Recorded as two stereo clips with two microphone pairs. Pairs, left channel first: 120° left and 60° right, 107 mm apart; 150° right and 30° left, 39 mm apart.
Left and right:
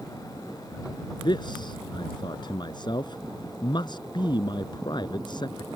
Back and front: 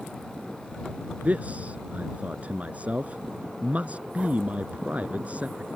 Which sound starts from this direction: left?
A man speaking, at 1.2 s.